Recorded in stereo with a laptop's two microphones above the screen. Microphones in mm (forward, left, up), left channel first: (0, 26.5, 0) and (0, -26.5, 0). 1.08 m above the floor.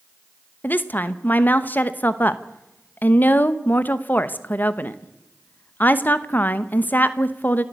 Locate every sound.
0.6 s a woman speaking: 30° left (ahead or behind), 0.9 m